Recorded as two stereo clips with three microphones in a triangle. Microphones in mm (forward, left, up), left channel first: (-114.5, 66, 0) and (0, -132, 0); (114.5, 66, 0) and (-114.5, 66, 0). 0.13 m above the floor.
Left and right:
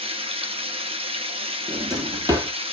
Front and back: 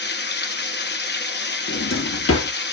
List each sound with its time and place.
0.0 s running water: 5° right, 0.8 m
1.7 s a drawer: 10° left, 0.8 m